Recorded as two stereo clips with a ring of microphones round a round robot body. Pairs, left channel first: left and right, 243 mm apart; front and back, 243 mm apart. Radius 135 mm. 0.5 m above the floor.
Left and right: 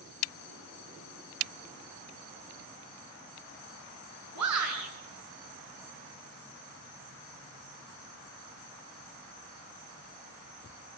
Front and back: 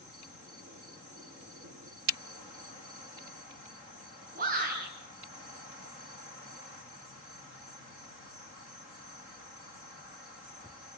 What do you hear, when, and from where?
4.3 s a shout: 120° right, 7 m